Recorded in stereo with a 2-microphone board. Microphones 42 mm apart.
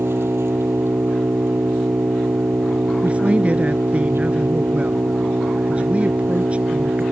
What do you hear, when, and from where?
0.0 s an engine running: 75° right (ahead or behind)
3.0 s a man speaking: 30° right (ahead or behind)